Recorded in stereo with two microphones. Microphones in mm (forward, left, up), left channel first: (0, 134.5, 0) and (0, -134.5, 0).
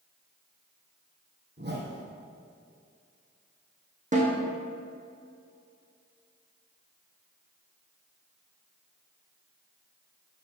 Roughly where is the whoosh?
Right.